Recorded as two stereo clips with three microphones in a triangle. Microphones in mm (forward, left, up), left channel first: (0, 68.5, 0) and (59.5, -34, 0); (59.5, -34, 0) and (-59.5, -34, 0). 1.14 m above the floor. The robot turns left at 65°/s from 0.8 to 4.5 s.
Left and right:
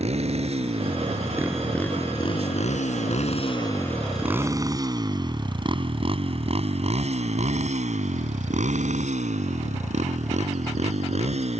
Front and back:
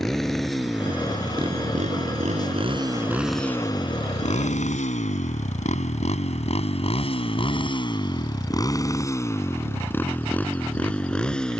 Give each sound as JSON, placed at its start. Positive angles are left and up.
{"t": 0.0, "sound": "a motorcycle", "azimuth_deg": -90}